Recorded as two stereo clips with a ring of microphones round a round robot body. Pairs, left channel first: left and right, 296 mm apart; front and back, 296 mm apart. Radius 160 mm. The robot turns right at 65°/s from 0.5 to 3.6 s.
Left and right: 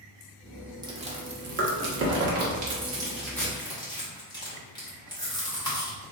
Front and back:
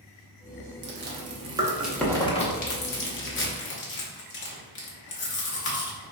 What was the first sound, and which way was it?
Chewing, 160° right.